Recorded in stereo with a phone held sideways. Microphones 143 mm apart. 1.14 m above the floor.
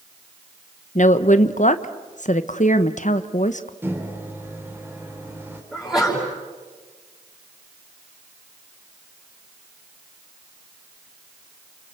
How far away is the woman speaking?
About 1.0 m.